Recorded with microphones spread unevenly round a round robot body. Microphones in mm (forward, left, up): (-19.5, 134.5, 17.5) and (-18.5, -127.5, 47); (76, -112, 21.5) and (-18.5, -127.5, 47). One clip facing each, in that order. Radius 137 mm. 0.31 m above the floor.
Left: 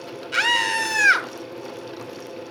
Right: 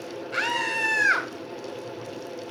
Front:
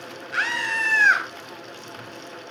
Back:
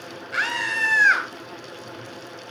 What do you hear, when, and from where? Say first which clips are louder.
0.3 s a scream: left 1 dB, even; 90° left, 2 m